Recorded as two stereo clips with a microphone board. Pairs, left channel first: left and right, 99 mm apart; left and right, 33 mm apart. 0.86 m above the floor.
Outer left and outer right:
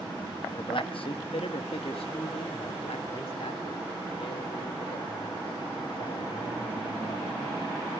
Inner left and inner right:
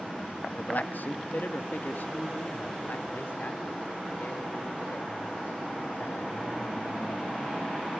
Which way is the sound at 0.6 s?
55° left (ahead or behind).